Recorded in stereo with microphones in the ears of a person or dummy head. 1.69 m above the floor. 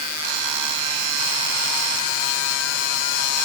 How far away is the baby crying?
No baby crying in this recording.